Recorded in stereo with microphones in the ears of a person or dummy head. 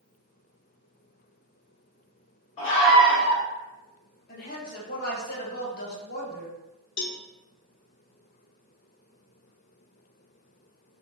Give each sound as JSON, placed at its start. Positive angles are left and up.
{"t": 2.6, "sound": "a scream", "side_deg": 25, "distance_m": 1.2}
{"t": 4.3, "sound": "a woman speaking", "side_deg": 55, "distance_m": 1.7}
{"t": 7.0, "sound": "a cowbell", "side_deg": 60, "distance_m": 0.6}